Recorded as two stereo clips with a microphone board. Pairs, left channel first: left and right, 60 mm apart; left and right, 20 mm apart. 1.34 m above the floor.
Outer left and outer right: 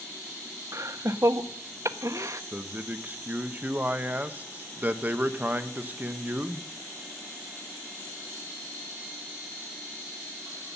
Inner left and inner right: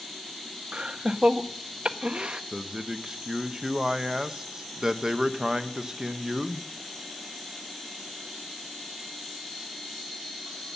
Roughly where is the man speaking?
Right.